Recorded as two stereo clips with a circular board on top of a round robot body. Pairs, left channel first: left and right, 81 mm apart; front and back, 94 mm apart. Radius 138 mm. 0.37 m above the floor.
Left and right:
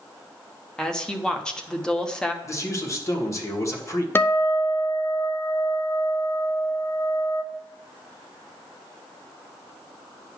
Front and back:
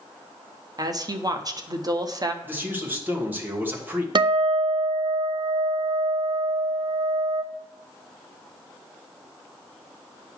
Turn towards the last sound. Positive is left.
turn(degrees=150)